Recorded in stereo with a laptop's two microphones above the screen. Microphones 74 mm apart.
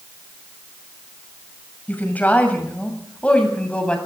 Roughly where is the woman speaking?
Left.